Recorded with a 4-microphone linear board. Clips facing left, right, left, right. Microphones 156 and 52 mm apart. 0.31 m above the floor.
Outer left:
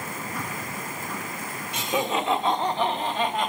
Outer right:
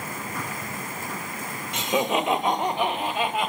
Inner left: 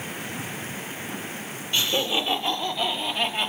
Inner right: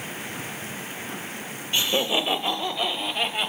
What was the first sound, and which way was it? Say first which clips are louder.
Laughter: outer right 2 dB, inner right 1 dB; 20° right (ahead or behind).